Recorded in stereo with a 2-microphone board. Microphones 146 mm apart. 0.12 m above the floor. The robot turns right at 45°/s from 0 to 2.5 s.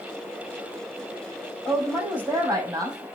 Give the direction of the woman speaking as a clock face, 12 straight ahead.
6 o'clock.